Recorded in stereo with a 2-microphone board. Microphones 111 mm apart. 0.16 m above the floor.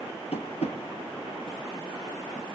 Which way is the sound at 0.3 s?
70° left (ahead or behind).